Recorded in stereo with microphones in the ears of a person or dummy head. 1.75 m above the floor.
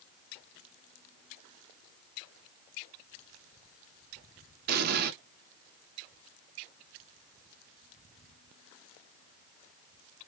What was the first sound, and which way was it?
An explosion, 60° right (ahead or behind).